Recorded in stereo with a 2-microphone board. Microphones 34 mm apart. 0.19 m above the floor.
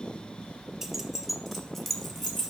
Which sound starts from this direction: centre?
Keys jangling, at 0.8 s.